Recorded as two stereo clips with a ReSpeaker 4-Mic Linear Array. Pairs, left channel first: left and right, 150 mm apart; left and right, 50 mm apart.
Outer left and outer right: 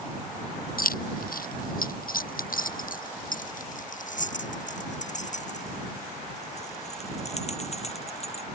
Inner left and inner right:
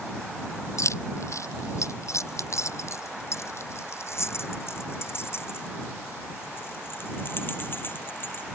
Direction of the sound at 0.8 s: 70° left (ahead or behind).